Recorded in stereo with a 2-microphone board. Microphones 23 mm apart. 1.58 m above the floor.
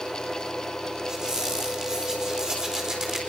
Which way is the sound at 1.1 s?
30° right (ahead or behind).